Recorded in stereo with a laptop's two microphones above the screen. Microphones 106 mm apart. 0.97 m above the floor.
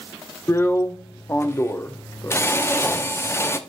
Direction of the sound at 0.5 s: 25° left (ahead or behind).